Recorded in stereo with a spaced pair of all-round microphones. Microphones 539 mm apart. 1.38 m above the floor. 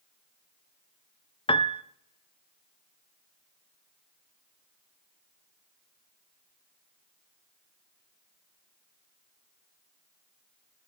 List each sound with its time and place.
1.5 s a piano: 10° left (ahead or behind), 0.5 m